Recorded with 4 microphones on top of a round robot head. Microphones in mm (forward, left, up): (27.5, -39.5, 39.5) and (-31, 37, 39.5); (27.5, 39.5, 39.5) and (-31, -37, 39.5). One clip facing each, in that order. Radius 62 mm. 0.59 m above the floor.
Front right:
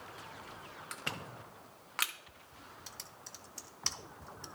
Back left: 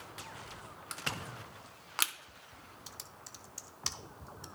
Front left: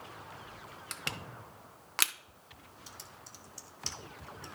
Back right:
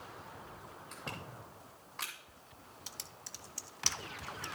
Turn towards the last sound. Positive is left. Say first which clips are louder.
# back left 1 dB, front left 3 dB
turn(degrees=-150)